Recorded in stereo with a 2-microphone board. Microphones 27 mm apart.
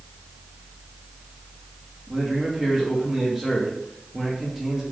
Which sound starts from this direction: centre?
A man speaking, at 2.1 s.